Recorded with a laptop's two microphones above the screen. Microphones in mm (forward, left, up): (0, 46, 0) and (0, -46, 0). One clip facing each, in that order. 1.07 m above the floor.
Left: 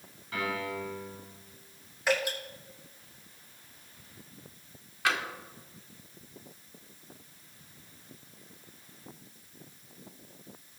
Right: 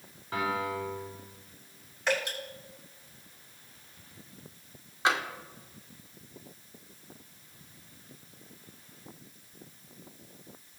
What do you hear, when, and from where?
0.3 s a piano: 30° right (ahead or behind), 3.5 m
2.1 s dripping: 5° left (ahead or behind), 5.5 m
5.0 s tapping: 25° right (ahead or behind), 1.9 m